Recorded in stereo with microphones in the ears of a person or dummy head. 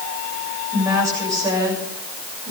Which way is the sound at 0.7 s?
20° right (ahead or behind).